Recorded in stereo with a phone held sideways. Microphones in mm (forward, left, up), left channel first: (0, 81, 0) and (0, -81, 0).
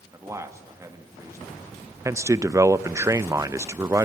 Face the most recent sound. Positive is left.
turn(degrees=-20)  # may be behind; listen again after turning